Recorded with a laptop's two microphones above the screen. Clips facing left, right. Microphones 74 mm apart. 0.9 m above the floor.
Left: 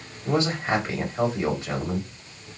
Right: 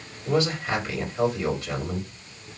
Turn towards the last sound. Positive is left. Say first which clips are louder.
# left 1 dB
turn(degrees=20)  # may be behind; listen again after turning